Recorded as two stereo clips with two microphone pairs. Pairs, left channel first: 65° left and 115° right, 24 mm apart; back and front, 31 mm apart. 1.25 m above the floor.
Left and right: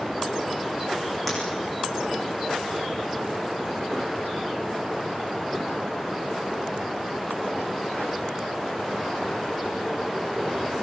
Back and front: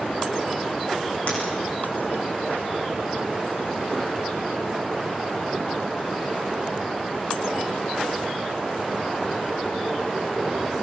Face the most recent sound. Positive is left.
turn(degrees=145)